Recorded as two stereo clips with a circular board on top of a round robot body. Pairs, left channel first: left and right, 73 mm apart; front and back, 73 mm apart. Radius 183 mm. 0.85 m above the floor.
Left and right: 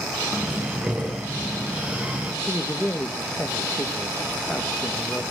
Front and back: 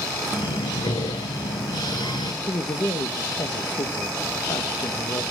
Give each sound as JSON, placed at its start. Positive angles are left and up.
{"t": 0.3, "sound": "breathing", "azimuth_deg": -20, "distance_m": 1.0}
{"t": 2.4, "sound": "a man speaking", "azimuth_deg": 15, "distance_m": 1.3}